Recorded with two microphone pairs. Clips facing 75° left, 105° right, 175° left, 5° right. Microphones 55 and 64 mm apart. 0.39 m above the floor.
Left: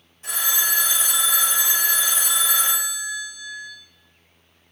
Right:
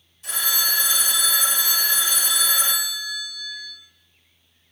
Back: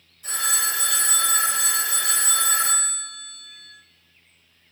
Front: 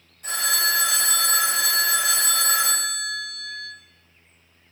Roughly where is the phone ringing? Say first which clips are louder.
Even, front 2 dB; ahead.